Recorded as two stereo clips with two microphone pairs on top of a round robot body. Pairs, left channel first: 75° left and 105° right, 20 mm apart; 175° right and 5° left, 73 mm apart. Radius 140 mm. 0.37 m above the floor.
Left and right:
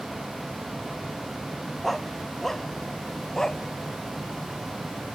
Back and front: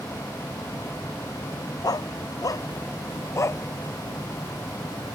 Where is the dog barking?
155° left; by 3.6 s 135° left.